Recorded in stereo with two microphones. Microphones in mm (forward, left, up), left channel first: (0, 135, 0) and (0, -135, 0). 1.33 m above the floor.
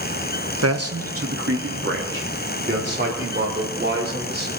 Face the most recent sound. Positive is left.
turn(degrees=-40)  # may be behind; listen again after turning